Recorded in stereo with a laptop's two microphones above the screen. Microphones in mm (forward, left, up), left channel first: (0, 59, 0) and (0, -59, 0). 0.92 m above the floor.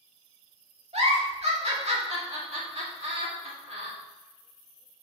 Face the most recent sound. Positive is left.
turn(degrees=-65)  # may be behind; listen again after turning